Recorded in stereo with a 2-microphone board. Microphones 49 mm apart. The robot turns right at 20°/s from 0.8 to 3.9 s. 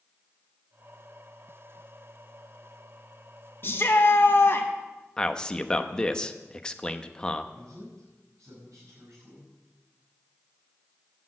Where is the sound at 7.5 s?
85° right, 6 m.